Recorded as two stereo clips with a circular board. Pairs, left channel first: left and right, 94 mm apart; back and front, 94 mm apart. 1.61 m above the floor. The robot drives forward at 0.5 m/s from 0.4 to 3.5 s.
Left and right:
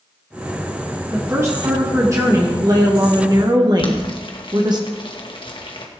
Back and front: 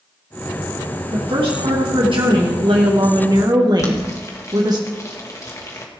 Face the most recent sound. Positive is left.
turn(degrees=120)